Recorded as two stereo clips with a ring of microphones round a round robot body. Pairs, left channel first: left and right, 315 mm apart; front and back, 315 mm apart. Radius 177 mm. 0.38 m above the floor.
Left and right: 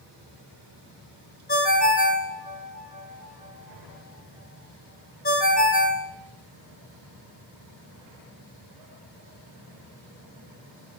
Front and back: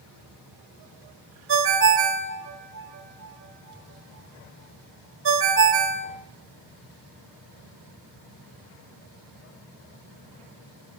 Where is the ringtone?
145° left, 1.0 m.